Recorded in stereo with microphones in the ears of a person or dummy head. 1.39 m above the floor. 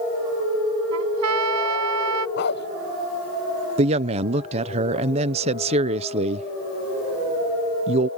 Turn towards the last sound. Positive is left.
turn(degrees=-35)  # may be behind; listen again after turning